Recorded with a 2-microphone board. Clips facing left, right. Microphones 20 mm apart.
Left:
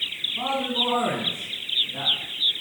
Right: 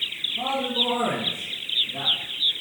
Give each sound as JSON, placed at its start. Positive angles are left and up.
{"t": 0.4, "sound": "a man speaking", "side_deg": 40, "distance_m": 2.0}